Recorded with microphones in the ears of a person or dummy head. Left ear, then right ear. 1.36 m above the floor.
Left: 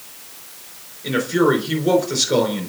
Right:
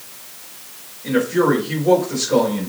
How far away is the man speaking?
About 4 m.